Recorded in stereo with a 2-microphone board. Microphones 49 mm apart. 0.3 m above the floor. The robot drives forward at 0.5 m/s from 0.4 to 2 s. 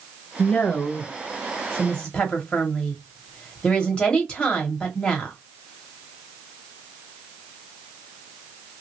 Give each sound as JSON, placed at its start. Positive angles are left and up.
{"t": 0.4, "sound": "a woman speaking", "side_deg": 25, "distance_m": 0.9}